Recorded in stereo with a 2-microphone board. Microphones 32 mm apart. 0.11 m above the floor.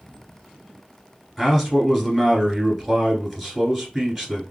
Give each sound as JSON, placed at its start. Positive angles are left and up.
{"t": 1.4, "sound": "a man speaking", "side_deg": 0, "distance_m": 1.8}